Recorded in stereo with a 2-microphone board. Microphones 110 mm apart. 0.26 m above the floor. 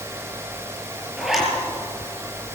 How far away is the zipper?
About 6.5 m.